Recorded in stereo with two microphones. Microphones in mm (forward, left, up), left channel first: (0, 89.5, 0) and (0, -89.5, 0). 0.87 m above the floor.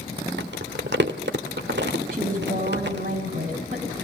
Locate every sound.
0.4 s crumpling: 75° right (ahead or behind), 1.5 m
2.1 s a woman speaking: 55° right (ahead or behind), 6.5 m